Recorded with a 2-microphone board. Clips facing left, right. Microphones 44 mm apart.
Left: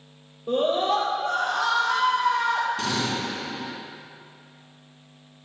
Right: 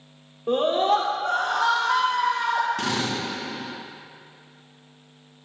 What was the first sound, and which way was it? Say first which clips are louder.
A scream: right 2 dB; 65° right (ahead or behind).